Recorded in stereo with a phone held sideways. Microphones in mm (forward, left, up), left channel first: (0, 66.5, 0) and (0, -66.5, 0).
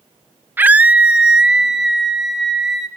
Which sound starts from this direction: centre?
A scream, at 0.6 s.